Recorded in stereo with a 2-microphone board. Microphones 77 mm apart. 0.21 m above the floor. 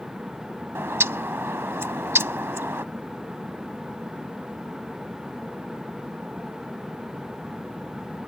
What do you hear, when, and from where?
0.8 s a bird: 35° right (ahead or behind)